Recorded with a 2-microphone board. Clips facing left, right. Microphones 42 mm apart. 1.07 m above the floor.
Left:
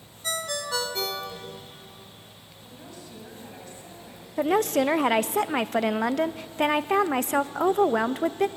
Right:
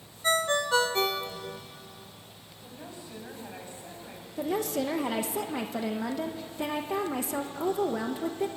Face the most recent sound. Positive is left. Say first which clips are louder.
# left 7 dB
turn(degrees=65)  # may be behind; listen again after turning